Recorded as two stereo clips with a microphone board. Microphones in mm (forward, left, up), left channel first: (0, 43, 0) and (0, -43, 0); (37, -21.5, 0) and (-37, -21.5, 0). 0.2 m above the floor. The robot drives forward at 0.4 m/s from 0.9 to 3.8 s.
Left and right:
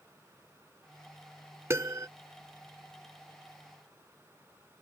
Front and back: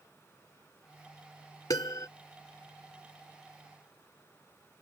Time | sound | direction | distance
1.7 | a piano | 35° right | ?